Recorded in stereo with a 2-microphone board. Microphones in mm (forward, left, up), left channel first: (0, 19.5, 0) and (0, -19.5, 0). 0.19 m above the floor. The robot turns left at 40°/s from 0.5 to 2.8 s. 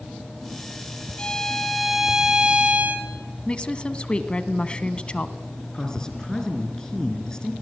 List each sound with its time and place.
1.2 s a violin: 25° left, 2.5 m; by 3.1 s 40° right, 2.5 m
3.5 s a woman speaking: 25° left (ahead or behind), 1.2 m
5.7 s a man speaking: 20° left (ahead or behind), 3.5 m